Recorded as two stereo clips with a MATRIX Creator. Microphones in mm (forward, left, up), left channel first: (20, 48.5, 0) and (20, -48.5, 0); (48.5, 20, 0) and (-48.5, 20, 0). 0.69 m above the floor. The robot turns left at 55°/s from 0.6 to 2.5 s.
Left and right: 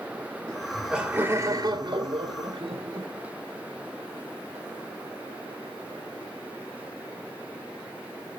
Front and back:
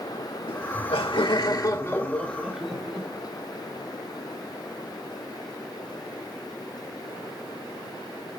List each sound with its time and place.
0.5 s laughter: 5° left, 2 m; by 3.1 s 100° right, 2 m